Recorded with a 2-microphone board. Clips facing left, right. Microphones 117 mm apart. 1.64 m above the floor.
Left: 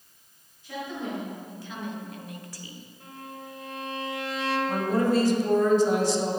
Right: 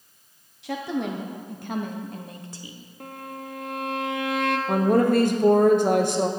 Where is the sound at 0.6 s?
85° right, 1.2 m; by 2.8 s 15° right (ahead or behind), 1.0 m.